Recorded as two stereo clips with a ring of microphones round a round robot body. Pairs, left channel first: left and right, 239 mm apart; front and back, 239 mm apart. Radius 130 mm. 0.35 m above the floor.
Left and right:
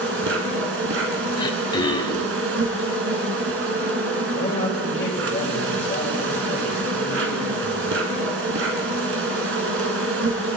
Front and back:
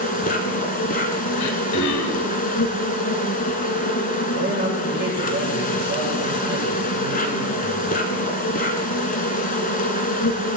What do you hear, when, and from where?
0.0 s an insect: 55° right, 1.1 m
1.4 s throat clearing: 15° left, 0.9 m
4.3 s a man speaking: 145° left, 1.9 m